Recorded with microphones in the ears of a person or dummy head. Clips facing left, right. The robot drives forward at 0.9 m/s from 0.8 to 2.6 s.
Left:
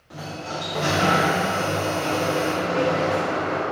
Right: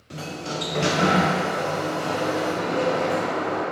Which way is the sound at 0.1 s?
30° right (ahead or behind).